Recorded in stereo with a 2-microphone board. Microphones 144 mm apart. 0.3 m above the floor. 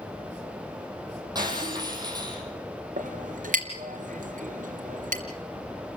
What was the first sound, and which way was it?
Breaking glass, 30° right (ahead or behind).